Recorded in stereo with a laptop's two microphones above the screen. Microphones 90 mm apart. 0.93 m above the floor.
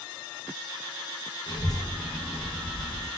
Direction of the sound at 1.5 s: 55° left (ahead or behind).